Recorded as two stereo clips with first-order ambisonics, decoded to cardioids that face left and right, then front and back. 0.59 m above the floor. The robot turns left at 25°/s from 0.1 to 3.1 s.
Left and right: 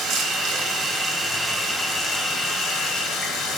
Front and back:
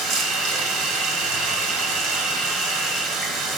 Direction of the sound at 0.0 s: 145° right.